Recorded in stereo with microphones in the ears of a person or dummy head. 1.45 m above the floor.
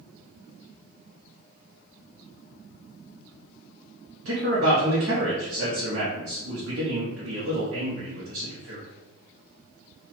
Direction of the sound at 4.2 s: 55° right (ahead or behind).